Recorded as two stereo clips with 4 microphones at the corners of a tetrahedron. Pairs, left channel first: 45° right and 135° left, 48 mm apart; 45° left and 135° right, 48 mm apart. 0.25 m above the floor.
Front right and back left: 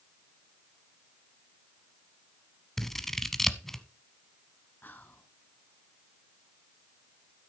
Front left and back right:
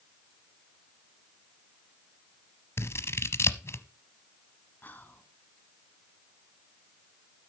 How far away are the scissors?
About 0.8 m.